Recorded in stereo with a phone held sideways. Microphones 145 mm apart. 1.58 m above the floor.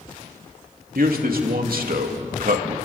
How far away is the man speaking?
About 3 m.